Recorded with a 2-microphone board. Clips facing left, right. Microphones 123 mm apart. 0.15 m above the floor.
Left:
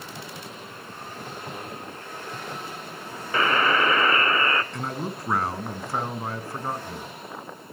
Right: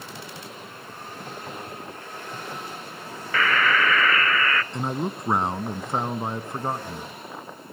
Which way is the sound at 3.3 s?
25° left (ahead or behind).